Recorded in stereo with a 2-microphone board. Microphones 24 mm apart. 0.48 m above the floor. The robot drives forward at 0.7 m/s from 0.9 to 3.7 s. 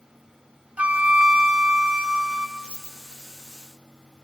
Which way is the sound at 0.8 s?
55° right (ahead or behind).